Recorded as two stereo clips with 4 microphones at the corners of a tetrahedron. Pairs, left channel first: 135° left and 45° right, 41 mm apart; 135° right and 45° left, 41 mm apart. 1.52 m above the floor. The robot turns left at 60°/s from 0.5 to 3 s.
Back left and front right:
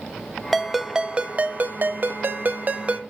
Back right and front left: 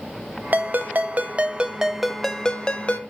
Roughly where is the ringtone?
Ahead left.